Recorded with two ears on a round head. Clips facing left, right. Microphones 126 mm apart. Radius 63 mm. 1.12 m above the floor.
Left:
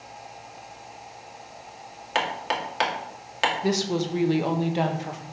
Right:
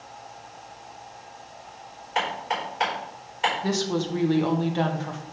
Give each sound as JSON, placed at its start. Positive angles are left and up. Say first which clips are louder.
{"t": 2.1, "sound": "hammering", "louder": "even", "side_deg": 85, "distance_m": 2.0}
{"t": 3.6, "sound": "a woman speaking", "louder": "left 1 dB", "side_deg": 15, "distance_m": 1.1}